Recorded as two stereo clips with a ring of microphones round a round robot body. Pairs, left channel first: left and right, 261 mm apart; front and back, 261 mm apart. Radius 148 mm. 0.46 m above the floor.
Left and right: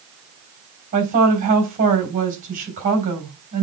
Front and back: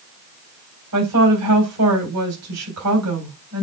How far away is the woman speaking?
About 3.5 m.